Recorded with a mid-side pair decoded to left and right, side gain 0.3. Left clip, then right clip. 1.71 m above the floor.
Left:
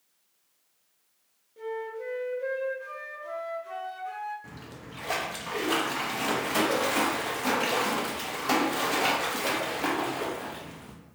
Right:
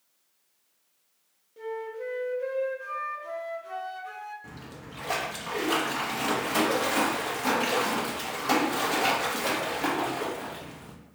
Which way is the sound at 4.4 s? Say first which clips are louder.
Right 1 dB; straight ahead.